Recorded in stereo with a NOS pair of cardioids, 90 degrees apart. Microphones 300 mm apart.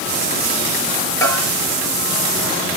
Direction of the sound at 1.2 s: 10° left.